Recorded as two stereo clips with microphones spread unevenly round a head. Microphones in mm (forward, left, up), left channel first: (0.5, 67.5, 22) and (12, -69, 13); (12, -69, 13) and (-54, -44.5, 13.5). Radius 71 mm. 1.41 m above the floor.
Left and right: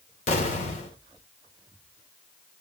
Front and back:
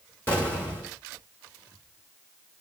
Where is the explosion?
55° left, 3 m.